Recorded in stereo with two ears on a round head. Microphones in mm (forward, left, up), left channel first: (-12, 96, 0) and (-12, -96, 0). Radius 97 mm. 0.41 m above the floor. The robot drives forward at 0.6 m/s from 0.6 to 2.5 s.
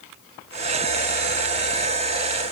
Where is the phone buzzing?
I don't hear a phone buzzing.